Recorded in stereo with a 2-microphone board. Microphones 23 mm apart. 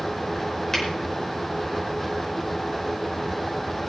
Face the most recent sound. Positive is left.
turn(degrees=20)  # may be behind; listen again after turning